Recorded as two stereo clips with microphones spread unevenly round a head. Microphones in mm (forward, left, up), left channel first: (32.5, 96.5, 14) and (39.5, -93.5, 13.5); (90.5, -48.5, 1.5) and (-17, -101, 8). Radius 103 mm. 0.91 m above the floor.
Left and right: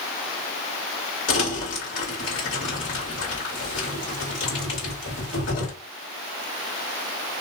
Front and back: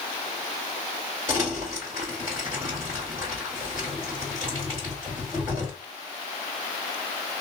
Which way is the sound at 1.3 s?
125° left.